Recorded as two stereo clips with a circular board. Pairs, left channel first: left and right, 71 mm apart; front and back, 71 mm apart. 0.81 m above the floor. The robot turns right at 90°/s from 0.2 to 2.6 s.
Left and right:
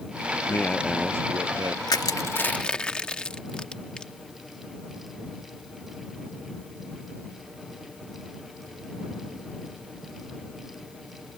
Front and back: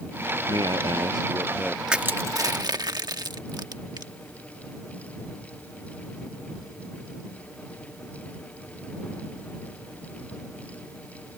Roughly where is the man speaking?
Behind left.